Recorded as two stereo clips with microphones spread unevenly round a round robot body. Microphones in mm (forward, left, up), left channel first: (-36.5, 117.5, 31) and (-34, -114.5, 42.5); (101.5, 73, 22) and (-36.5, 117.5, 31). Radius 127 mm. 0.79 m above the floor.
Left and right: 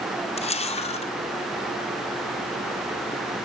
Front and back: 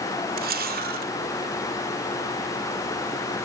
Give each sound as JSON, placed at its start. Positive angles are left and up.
{"t": 0.4, "sound": "a camera shutter", "azimuth_deg": 155, "distance_m": 2.5}